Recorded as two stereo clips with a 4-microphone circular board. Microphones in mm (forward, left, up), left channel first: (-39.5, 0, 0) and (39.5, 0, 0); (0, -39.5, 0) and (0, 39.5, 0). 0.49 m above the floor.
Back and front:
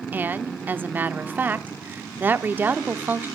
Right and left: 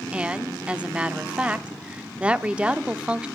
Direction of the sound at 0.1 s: 30° left.